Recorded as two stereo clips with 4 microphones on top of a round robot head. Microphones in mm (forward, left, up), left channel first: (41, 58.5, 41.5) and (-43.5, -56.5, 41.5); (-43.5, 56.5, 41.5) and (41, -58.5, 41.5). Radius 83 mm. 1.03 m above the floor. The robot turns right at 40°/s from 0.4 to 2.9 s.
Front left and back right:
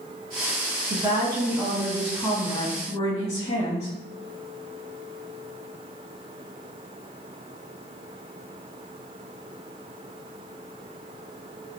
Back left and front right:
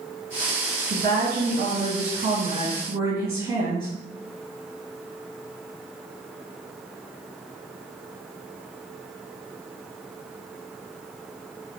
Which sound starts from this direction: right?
A woman speaking, at 0.9 s.